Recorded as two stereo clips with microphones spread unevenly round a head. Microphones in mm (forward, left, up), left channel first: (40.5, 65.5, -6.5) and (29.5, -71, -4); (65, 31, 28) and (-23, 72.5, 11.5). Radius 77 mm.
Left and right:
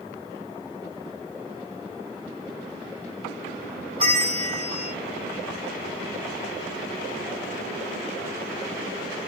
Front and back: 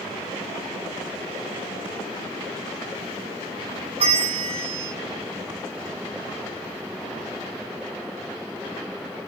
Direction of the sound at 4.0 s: 145° right.